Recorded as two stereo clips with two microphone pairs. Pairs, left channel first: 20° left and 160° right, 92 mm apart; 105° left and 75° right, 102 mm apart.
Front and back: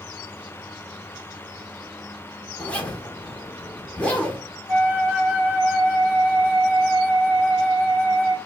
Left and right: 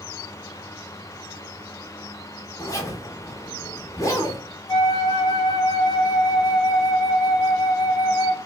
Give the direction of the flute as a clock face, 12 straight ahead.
7 o'clock.